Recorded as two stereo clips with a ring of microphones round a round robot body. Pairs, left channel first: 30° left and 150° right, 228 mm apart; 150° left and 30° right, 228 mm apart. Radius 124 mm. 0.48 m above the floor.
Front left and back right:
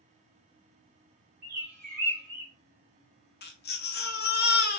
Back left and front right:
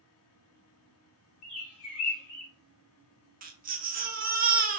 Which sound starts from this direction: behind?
A bird, at 1.4 s.